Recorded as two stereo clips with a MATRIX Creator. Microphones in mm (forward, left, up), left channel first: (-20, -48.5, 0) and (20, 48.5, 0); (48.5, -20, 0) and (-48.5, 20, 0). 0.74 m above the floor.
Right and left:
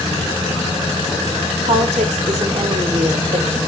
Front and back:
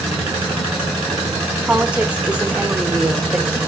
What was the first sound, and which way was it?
A woman speaking, 80° left.